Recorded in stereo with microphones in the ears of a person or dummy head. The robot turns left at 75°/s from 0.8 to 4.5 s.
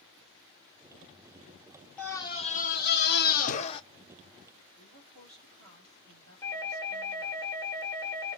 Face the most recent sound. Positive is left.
turn(degrees=15)  # may be behind; listen again after turning